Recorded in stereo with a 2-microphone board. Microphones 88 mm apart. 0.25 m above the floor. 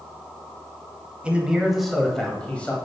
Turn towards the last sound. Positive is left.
turn(degrees=15)  # may be behind; listen again after turning